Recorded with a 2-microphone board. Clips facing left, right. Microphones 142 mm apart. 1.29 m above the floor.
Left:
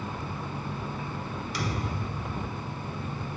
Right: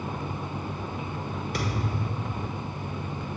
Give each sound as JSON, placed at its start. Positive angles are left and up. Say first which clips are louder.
{"t": 1.5, "sound": "a thud", "louder": "right 1 dB", "side_deg": -50, "distance_m": 1.3}